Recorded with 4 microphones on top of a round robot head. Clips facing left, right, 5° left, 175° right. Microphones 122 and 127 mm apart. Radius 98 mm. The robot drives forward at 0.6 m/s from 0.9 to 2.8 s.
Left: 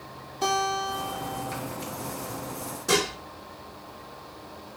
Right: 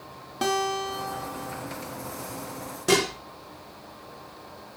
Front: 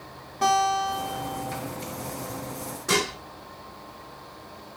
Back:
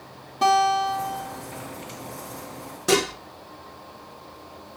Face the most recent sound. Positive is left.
turn(degrees=-135)